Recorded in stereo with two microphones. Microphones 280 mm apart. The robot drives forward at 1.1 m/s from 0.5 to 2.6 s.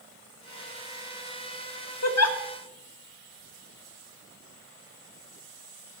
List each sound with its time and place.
2.0 s a giggle: 60° left (ahead or behind), 0.5 m; by 2.4 s 55° left (ahead or behind), 0.5 m